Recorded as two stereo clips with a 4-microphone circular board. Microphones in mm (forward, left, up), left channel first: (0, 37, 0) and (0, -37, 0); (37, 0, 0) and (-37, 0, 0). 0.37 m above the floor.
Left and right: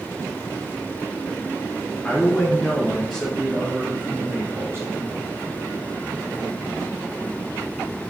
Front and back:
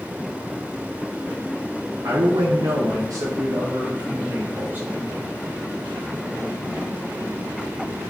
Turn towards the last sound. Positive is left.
turn(degrees=-120)